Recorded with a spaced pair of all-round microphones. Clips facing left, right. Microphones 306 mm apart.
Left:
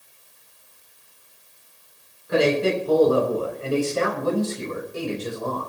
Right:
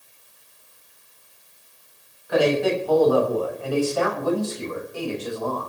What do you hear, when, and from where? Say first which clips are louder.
2.3 s a man speaking: even; 30° left (ahead or behind), 7 m